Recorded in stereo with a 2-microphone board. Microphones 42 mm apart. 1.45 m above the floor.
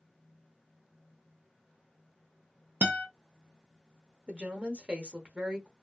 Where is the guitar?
55° right (ahead or behind), 0.7 m.